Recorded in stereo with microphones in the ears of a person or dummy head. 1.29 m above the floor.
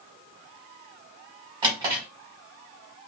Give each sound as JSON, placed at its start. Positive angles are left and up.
{"t": 1.6, "sound": "a drawer", "side_deg": -20, "distance_m": 1.7}